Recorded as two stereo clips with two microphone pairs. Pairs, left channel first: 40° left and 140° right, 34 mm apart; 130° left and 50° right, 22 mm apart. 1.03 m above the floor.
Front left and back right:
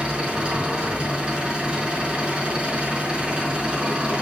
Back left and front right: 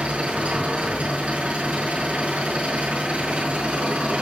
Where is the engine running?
85° right, 5 m.